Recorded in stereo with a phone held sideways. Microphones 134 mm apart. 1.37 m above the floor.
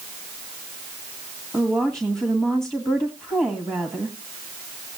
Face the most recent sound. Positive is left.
turn(degrees=-20)  # may be behind; listen again after turning